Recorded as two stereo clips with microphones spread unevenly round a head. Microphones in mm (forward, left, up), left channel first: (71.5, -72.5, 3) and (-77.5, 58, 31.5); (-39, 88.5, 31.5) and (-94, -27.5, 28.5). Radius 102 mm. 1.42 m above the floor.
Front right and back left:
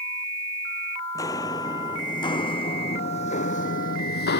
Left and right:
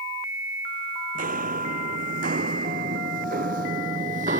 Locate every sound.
1.1 s footsteps: 120° right; by 4.4 s 80° right